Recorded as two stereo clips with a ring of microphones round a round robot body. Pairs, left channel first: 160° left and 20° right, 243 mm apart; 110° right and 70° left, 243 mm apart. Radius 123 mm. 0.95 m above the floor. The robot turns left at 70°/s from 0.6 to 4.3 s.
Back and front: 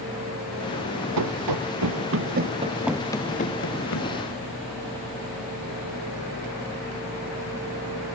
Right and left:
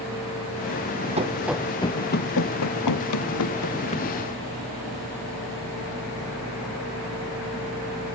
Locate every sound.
1.2 s running footsteps: straight ahead; by 4.1 s 170° left